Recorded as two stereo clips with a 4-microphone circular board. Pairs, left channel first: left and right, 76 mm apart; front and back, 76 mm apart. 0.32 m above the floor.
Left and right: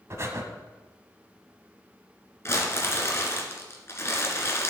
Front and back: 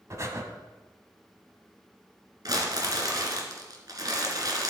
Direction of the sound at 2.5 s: 145° left.